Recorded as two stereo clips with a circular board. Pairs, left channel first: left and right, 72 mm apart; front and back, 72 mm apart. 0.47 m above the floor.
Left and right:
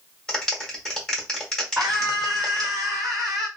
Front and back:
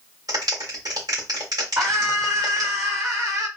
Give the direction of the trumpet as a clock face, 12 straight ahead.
I don't hear a trumpet.